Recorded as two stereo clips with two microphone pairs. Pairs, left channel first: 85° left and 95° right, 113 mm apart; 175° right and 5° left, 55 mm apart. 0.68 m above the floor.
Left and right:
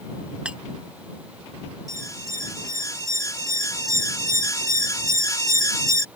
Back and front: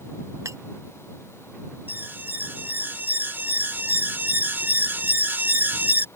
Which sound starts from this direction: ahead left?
An alarm, at 1.9 s.